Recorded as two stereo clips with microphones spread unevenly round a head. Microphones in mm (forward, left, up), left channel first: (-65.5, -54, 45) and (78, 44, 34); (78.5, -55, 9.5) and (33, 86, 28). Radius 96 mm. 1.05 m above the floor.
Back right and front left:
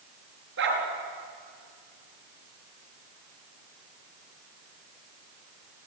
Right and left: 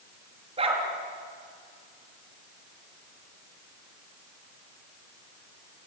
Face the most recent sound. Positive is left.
turn(degrees=60)